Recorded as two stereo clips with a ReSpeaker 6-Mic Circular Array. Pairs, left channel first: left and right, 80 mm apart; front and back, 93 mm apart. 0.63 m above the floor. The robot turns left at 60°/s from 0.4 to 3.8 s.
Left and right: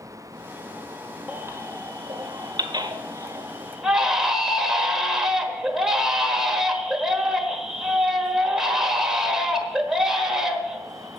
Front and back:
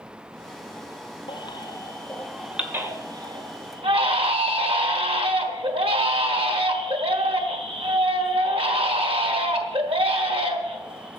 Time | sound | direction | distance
1.3 | a baby crying | 25° right | 1.3 m